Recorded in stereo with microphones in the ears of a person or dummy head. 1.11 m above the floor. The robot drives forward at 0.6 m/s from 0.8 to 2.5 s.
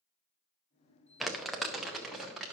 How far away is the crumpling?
About 0.7 m.